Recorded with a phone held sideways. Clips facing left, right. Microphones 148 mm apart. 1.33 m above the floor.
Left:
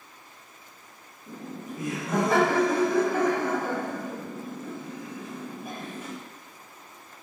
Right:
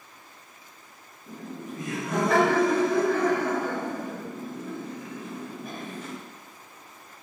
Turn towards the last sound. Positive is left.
turn(degrees=10)  # may be behind; listen again after turning